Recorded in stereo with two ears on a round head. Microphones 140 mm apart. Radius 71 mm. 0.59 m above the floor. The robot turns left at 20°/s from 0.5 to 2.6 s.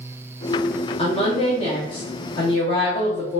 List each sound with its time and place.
1.0 s a woman speaking: 85° left, 0.7 m; by 3.4 s 55° left, 0.7 m